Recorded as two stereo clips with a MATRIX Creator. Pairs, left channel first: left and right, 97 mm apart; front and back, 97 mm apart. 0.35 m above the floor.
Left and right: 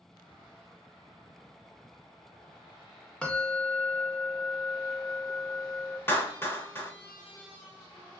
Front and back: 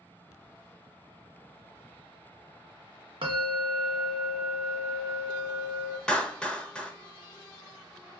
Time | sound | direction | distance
3.2 | a bell | 170° left | 0.6 m
6.1 | a clap | 65° left | 0.7 m